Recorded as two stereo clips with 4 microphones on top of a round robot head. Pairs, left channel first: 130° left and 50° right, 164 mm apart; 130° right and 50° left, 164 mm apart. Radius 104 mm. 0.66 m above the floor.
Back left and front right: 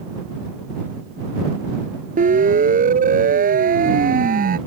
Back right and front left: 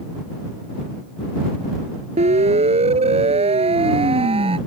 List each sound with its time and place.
2.2 s a siren: 5° right; by 4.6 s 10° right